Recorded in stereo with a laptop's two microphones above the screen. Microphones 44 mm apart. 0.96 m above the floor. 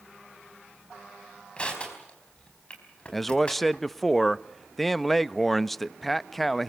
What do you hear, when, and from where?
1.6 s crushing: 25° left (ahead or behind), 4 m
3.1 s a man speaking: 5° left (ahead or behind), 0.6 m